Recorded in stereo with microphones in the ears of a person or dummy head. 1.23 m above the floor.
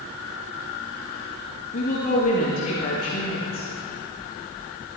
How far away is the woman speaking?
About 1.5 m.